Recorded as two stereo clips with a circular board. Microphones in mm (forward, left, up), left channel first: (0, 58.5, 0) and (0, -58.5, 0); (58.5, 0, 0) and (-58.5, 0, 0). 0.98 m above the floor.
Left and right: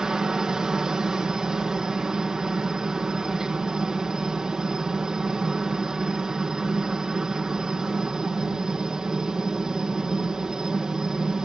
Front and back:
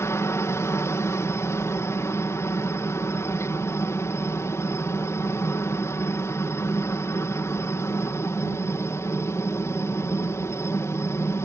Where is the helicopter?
15° right.